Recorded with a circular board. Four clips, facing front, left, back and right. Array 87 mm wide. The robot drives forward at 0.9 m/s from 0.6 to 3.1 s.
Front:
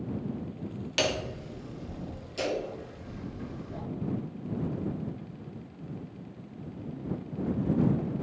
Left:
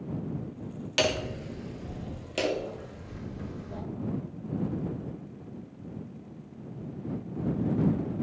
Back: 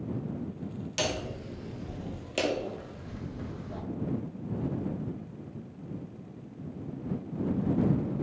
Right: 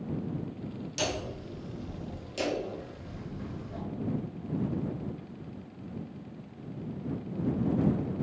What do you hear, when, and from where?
1.0 s hammering: 60° left, 0.8 m; by 3.8 s 160° left, 1.7 m